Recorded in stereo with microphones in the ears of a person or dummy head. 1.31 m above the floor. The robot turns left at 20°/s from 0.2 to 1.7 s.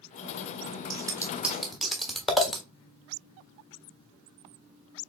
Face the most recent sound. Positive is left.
turn(degrees=0)  # may be behind; listen again after turning